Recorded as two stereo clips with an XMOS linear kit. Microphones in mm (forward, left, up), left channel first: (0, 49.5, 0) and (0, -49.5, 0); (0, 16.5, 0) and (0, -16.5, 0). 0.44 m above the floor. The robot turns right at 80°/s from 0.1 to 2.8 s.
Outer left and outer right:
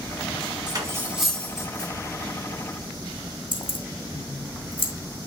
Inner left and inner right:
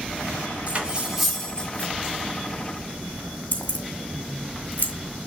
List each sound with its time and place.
0.7 s cutlery clinking: 45° right (ahead or behind), 2 m; by 1.9 s 50° left (ahead or behind), 2 m
3.5 s keys jangling: 55° left (ahead or behind), 1.7 m